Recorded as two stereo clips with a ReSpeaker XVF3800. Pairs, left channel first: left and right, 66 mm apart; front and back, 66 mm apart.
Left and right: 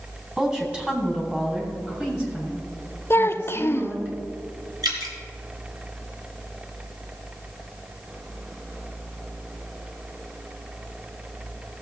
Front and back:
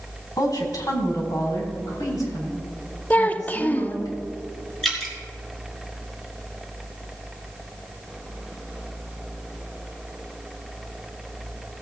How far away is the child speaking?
About 0.6 m.